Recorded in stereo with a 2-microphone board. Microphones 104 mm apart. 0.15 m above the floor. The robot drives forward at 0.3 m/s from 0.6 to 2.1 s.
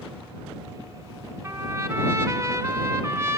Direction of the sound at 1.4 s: 25° right (ahead or behind).